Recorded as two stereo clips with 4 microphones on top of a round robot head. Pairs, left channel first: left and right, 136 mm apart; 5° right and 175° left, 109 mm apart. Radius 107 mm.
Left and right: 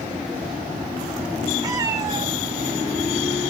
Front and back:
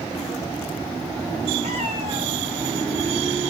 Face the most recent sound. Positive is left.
turn(degrees=-140)